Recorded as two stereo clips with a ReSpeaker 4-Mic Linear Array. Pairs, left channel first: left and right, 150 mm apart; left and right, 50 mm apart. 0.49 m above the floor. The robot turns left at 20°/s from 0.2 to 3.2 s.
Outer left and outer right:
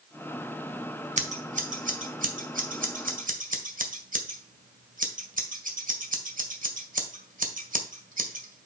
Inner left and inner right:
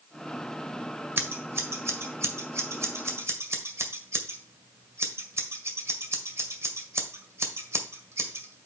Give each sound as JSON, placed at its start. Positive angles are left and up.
{"t": 1.2, "sound": "scissors", "side_deg": -50, "distance_m": 1.7}